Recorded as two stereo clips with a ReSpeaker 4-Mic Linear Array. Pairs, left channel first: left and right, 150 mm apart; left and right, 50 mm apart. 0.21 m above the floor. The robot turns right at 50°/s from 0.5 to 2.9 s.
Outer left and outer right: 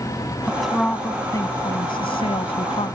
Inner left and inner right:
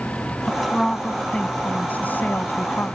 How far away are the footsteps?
I don't hear footsteps.